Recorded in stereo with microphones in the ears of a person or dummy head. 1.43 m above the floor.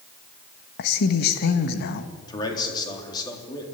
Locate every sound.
0.8 s a man speaking: 60° left (ahead or behind), 1.3 m
2.3 s a man speaking: 25° left (ahead or behind), 3.5 m